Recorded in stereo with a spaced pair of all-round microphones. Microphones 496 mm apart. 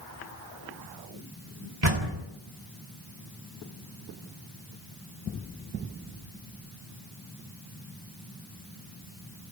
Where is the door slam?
65° right (ahead or behind), 2.5 m.